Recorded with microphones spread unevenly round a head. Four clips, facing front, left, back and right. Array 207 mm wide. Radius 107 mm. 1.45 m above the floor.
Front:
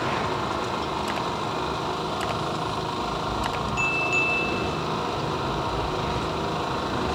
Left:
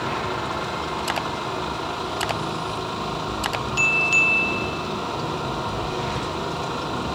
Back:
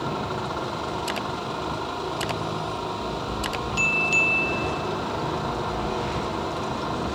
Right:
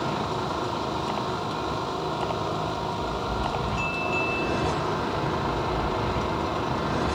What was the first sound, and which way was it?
Only background noise.